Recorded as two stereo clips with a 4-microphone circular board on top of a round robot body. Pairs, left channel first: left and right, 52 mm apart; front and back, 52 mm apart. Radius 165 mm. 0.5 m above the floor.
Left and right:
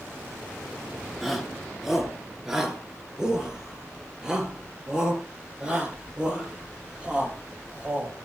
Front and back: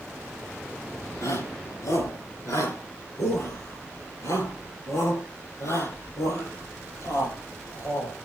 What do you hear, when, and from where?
1.2 s a shout: straight ahead, 7 m; by 8.3 s 20° right, 15.5 m